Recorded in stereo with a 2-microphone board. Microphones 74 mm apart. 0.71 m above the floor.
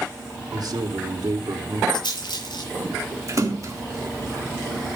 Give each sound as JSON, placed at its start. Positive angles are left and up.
{"t": 0.5, "sound": "a man speaking", "side_deg": -60, "distance_m": 2.5}
{"t": 1.9, "sound": "a rattle", "side_deg": 85, "distance_m": 6.5}
{"t": 3.3, "sound": "a splash", "side_deg": -45, "distance_m": 2.0}